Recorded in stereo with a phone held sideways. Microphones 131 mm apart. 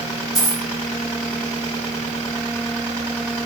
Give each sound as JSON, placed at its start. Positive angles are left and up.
{"t": 0.3, "sound": "a dropped coin", "side_deg": 30, "distance_m": 4.5}